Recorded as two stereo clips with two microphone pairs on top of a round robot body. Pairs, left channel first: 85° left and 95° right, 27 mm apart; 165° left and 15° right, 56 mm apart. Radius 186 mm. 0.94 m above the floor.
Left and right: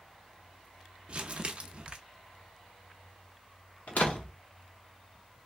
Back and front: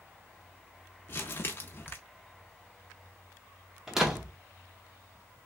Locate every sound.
1.1 s crumpling: 145° right, 0.5 m
3.9 s a door slam: 65° left, 0.6 m